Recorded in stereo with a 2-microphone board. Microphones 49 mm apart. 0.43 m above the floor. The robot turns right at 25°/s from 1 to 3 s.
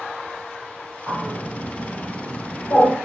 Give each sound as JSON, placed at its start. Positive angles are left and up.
{"t": 1.1, "sound": "a bird", "side_deg": 50, "distance_m": 1.7}